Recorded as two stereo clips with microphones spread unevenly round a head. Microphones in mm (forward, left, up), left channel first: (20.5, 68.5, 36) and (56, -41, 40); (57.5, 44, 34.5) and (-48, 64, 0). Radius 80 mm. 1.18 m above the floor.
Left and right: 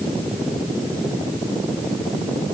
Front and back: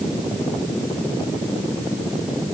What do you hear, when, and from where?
Only background noise.